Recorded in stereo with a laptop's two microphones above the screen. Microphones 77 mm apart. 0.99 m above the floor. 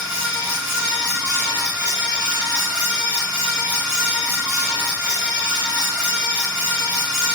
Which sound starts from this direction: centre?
A fan, at 0.0 s.